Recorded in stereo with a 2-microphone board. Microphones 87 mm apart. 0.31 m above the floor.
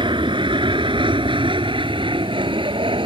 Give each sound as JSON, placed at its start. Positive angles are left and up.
{"t": 0.0, "sound": "an aircraft", "side_deg": -70}